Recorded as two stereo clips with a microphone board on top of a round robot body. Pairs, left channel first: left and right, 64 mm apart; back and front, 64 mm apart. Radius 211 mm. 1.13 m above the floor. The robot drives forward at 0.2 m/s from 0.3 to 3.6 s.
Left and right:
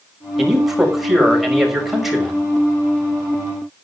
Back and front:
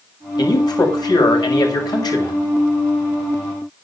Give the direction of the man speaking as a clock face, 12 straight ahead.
6 o'clock.